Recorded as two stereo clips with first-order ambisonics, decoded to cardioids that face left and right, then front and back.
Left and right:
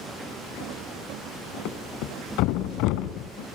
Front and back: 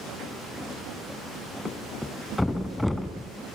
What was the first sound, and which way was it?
A thud, 85° left.